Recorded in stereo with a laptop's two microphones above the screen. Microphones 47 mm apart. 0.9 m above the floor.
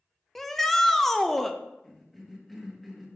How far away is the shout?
About 0.6 m.